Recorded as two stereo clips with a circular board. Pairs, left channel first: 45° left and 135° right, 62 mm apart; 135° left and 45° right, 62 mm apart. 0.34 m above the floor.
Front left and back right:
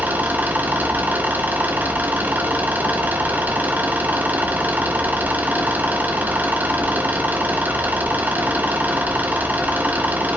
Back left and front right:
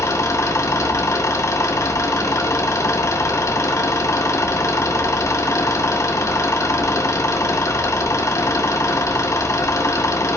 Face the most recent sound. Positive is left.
turn(degrees=165)